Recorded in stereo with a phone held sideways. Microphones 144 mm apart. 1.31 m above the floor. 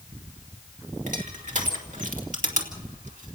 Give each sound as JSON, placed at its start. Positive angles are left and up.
{"t": 1.1, "sound": "crushing", "side_deg": -60, "distance_m": 2.5}